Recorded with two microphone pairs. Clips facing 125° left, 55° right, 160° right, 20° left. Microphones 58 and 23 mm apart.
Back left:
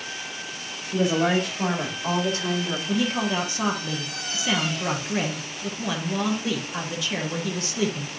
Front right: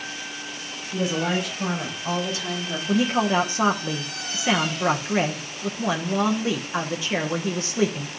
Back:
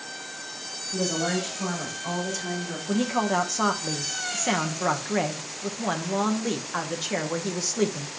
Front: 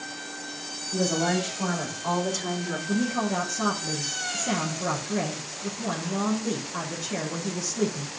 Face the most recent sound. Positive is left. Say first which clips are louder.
# front right 5 dB, back 3 dB
turn(degrees=-115)